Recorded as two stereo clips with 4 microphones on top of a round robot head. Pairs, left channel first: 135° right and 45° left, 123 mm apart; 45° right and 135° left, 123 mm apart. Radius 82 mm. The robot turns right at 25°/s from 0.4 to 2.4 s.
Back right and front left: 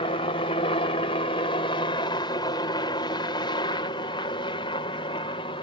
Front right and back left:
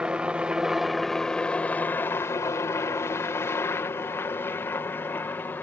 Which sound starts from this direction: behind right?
A helicopter, at 0.0 s.